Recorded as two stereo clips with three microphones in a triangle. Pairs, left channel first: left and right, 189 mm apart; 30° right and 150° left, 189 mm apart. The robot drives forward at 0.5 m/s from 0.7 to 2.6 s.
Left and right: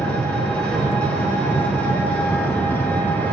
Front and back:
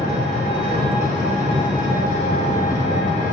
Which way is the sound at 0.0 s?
10° left.